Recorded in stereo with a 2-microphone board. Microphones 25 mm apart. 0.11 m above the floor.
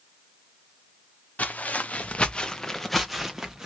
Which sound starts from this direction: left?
Footsteps, at 1.4 s.